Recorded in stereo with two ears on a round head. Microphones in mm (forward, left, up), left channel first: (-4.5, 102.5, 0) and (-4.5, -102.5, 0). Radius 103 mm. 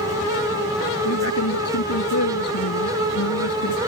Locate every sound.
1.1 s a man speaking: 70° left (ahead or behind); by 3.8 s 80° left